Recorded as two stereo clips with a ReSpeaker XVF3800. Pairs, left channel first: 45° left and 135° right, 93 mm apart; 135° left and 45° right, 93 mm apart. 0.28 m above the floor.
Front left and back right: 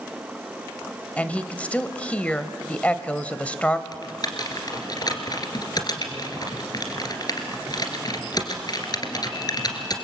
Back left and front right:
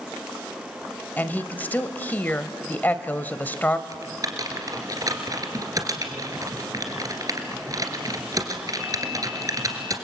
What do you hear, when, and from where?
1.2 s a woman speaking: 100° left, 0.9 m
3.9 s typing on a keyboard: 5° left, 2 m